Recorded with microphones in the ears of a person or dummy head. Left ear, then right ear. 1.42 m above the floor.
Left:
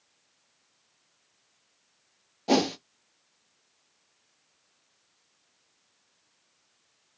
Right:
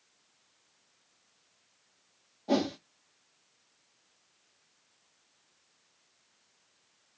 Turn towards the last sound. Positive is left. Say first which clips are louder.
# left 5 dB
turn(degrees=65)  # may be behind; listen again after turning